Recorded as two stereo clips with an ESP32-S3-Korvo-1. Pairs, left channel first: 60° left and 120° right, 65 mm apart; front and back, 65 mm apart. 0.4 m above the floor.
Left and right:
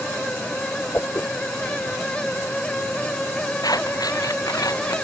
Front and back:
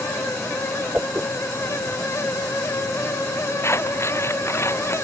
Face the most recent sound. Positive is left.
turn(degrees=45)